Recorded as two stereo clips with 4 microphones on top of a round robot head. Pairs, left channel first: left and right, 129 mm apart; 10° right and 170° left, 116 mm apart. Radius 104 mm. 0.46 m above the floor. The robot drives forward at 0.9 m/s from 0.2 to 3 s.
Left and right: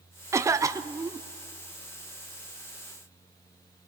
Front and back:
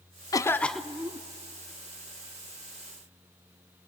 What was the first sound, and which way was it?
A cough, 40° right.